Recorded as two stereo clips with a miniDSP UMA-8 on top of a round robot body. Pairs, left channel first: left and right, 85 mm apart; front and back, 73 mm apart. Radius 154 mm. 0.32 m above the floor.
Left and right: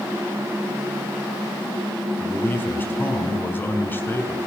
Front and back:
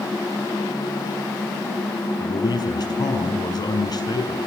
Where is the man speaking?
25° left, 6 m.